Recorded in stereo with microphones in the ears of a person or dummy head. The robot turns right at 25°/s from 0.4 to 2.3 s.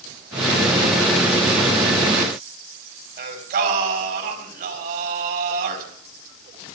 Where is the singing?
50° right (ahead or behind), 4.5 m.